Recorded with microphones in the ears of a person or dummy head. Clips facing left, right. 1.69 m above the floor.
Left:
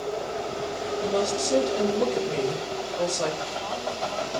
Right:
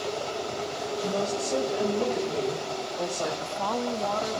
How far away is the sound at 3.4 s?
About 1.0 m.